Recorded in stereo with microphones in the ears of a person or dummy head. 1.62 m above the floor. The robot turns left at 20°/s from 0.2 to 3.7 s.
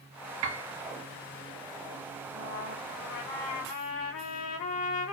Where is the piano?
90° right, 0.7 m; by 0.7 s 85° right, 0.7 m.